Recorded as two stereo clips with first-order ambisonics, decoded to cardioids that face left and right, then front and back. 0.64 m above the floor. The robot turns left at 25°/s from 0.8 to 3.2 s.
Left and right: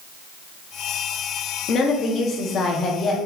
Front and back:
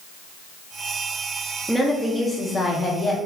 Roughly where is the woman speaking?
Left.